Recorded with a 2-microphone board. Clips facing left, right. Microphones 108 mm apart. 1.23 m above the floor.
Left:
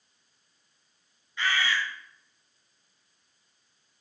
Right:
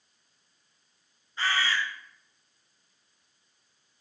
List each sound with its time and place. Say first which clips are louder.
1.4 s a bird: even; 35° right (ahead or behind), 0.6 m